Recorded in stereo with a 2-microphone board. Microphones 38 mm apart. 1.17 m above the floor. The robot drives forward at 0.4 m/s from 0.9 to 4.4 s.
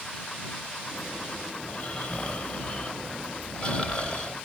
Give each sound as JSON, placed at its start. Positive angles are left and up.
{"t": 1.6, "sound": "snoring", "side_deg": 40, "distance_m": 3.0}